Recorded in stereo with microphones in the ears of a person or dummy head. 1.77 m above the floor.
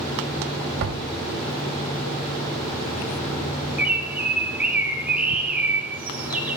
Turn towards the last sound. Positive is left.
turn(degrees=-5)  # may be behind; listen again after turning